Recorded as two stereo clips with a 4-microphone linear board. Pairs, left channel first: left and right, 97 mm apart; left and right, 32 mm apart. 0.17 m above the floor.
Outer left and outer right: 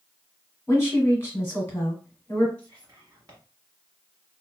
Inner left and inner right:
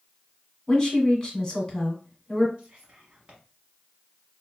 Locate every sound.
0.7 s a woman speaking: 20° left (ahead or behind), 1.8 m
2.6 s whispering: 30° right (ahead or behind), 1.2 m